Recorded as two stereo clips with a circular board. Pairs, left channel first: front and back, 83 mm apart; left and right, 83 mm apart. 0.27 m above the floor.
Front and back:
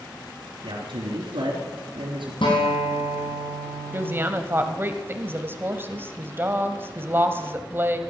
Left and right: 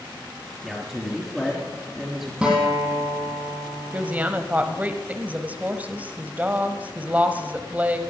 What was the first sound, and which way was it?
A man speaking, 175° left.